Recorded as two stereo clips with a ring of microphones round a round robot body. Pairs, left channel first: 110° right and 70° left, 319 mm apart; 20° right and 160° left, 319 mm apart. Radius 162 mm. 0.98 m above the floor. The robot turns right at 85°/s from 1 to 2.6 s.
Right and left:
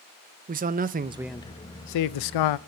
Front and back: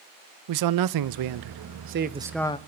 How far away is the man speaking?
About 0.5 m.